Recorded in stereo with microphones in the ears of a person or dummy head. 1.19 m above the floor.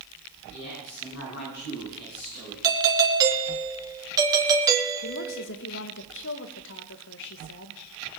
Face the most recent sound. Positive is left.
turn(degrees=65)  # may be behind; listen again after turning